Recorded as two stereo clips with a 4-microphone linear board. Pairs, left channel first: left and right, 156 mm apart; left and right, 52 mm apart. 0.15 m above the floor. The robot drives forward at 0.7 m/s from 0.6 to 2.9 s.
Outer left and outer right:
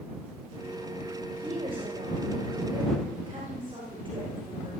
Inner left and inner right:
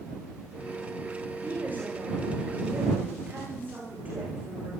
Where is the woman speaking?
40° right (ahead or behind), 9 m; by 4.7 s 35° right (ahead or behind), 10 m.